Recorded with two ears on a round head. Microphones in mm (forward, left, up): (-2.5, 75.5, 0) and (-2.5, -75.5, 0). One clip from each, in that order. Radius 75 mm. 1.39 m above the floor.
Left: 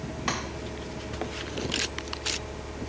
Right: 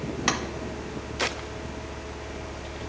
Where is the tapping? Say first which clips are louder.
Right 4 dB; 35° right (ahead or behind), 0.7 m.